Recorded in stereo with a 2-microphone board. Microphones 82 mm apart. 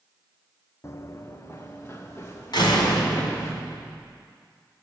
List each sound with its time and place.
0.8 s running footsteps: 35° left (ahead or behind), 0.7 m; by 3.5 s 30° left (ahead or behind), 3.5 m
2.5 s a door slam: 65° left (ahead or behind), 2.5 m